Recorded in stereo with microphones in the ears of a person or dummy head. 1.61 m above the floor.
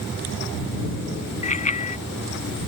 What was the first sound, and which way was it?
A bicycle bell, 40° left (ahead or behind).